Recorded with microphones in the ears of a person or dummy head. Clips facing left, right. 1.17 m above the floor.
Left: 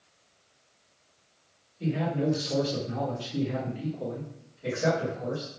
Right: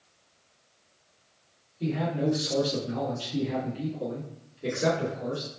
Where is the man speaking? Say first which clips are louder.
Even; 5° left (ahead or behind), 1.1 m; by 5.5 s 55° right (ahead or behind), 1.4 m.